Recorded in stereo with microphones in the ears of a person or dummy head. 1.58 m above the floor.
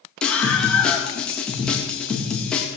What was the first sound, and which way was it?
A scream, 5° left (ahead or behind).